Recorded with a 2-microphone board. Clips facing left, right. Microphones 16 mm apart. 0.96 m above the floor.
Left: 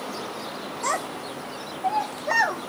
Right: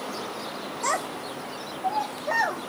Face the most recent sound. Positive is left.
turn(degrees=75)  # may be behind; listen again after turning